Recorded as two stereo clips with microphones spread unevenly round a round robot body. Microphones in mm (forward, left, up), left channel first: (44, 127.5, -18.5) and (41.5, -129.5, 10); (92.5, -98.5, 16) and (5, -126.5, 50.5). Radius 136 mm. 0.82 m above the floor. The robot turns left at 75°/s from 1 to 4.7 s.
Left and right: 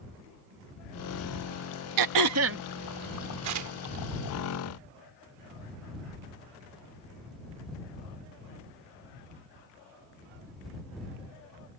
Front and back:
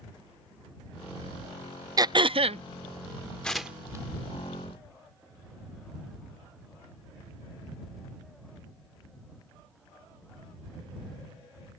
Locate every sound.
2.0 s throat clearing: 100° right; by 2.6 s 150° right
3.4 s tearing paper: 65° right; by 4.0 s 115° right